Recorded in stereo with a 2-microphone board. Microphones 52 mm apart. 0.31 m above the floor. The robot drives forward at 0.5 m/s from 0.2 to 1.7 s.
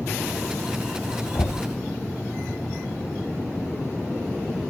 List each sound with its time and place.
1.4 s knocking: 60° left (ahead or behind), 1.2 m